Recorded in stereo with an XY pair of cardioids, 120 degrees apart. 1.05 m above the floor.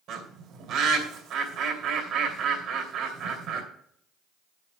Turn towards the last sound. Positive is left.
turn(degrees=-65)